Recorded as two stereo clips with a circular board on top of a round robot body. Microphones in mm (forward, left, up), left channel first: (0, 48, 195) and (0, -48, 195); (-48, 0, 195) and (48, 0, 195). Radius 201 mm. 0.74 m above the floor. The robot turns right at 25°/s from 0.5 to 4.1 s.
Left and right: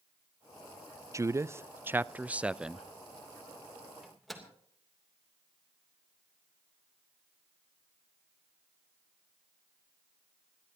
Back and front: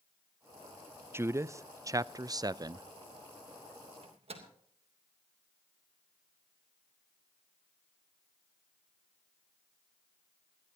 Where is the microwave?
5° right, 3 m; by 4.5 s straight ahead, 3 m.